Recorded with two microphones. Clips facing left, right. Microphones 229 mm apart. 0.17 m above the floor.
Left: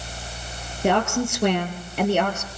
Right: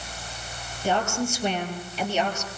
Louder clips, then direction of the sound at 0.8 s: Left 4 dB; 70° left (ahead or behind).